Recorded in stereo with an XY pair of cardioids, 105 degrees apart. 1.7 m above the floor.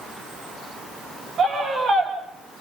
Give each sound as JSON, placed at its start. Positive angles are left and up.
{"t": 1.4, "sound": "a scream", "azimuth_deg": -60, "distance_m": 9.5}